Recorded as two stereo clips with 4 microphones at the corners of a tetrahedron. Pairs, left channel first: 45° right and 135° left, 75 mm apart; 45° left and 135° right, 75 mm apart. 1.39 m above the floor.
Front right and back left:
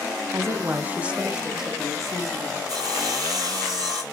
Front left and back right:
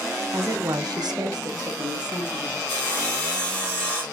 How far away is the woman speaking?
About 0.9 m.